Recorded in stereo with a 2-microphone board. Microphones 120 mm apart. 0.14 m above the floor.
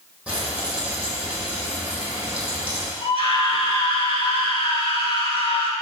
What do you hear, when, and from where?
0.3 s frying: 10° right (ahead or behind), 4 m
3.0 s a scream: 50° left (ahead or behind), 2.5 m